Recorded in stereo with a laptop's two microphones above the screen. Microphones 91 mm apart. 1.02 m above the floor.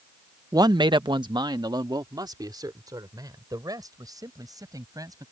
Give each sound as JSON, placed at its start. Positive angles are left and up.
{"t": 0.5, "sound": "a man speaking", "side_deg": -40}